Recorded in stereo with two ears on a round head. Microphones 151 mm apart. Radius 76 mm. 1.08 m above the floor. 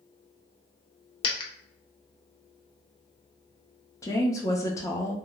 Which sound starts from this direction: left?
A dropped coin, at 1.2 s.